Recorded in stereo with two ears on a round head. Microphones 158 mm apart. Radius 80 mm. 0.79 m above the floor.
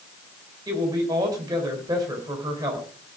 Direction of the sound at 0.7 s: 20° right (ahead or behind).